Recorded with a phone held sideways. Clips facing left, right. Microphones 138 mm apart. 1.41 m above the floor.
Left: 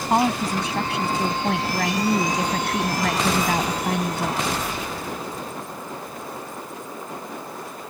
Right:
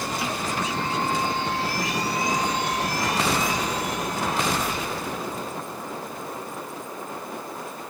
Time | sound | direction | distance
0.1 | a woman speaking | 70° left (ahead or behind) | ?